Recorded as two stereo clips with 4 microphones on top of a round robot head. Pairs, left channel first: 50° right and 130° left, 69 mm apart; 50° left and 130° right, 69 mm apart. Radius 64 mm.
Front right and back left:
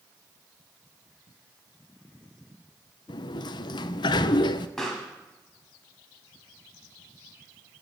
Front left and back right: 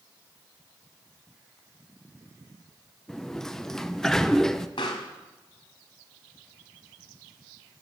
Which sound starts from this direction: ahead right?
A sliding door, at 3.1 s.